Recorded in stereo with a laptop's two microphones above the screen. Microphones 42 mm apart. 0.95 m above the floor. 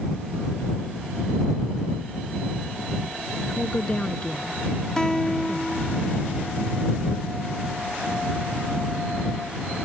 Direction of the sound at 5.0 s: 15° left (ahead or behind).